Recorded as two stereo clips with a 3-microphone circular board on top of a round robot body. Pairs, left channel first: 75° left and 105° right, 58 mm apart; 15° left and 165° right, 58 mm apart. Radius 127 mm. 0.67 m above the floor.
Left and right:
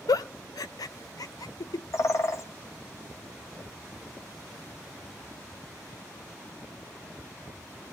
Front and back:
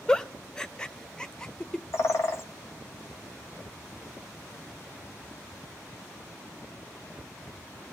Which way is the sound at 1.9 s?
50° left.